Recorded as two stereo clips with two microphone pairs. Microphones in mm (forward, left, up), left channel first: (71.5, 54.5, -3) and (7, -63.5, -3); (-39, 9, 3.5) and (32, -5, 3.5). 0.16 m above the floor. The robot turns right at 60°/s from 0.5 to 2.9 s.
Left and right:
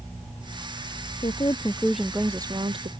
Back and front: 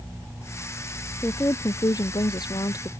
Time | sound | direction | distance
1.2 | a woman speaking | 105° left | ?